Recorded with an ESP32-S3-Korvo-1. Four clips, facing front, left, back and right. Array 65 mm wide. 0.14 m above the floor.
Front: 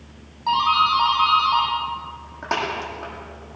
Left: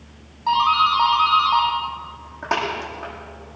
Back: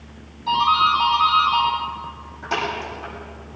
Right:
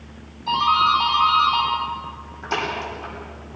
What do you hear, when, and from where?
0.5 s a doorbell: 45° left, 9 m